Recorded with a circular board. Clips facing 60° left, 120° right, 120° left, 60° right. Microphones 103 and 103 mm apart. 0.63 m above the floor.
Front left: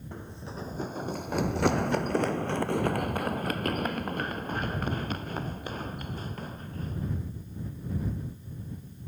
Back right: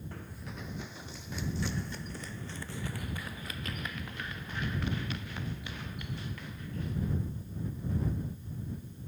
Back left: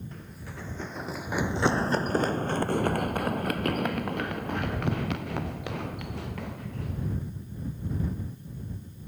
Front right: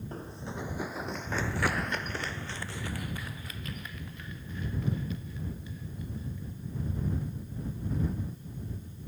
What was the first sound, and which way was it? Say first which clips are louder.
Running footsteps: front left 4 dB, front right 4 dB; 10° right.